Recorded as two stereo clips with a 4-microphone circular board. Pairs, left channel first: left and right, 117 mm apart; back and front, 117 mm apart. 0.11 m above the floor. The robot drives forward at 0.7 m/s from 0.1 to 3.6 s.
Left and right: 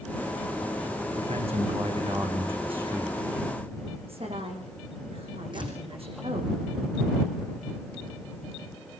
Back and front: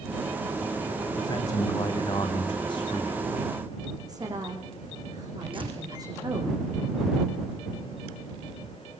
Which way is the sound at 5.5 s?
45° right.